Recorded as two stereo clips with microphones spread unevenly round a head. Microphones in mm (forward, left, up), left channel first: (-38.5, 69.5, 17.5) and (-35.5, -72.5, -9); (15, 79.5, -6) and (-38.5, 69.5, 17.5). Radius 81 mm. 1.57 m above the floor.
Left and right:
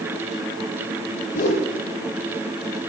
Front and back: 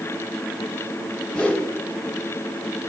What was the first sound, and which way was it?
A whoosh, 95° left.